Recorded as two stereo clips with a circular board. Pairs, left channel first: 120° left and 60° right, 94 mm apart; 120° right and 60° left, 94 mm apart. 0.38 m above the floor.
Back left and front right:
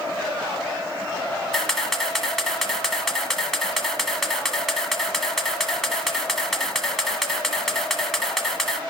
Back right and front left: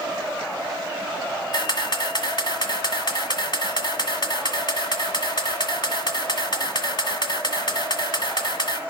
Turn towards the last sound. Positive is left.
turn(degrees=-155)